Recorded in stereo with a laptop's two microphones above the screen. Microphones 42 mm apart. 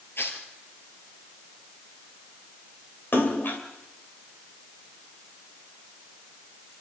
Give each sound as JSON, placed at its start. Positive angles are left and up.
{"t": 0.2, "sound": "tearing paper", "side_deg": 65, "distance_m": 3.5}
{"t": 3.1, "sound": "a splash", "side_deg": 55, "distance_m": 2.5}